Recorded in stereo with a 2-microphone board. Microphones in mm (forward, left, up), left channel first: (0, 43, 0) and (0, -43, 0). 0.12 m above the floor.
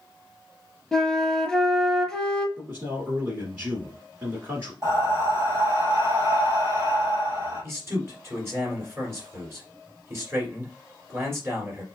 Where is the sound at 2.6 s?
25° right (ahead or behind), 1.6 m.